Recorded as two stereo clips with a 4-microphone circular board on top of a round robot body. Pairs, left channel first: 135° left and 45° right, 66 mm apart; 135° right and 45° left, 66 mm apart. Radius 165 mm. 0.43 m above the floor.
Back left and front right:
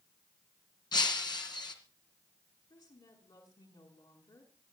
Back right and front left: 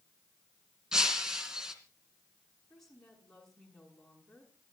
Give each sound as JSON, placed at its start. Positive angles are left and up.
{"t": 0.9, "sound": "breaking glass", "azimuth_deg": 130, "distance_m": 2.5}
{"t": 2.7, "sound": "a woman speaking", "azimuth_deg": 140, "distance_m": 7.0}